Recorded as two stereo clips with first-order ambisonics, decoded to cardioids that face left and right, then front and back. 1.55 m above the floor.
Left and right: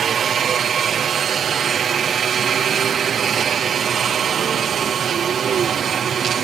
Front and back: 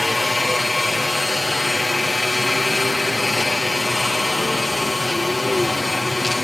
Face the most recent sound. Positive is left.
turn(degrees=-75)